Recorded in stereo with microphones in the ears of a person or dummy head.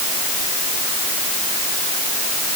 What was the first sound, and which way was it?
Only background noise.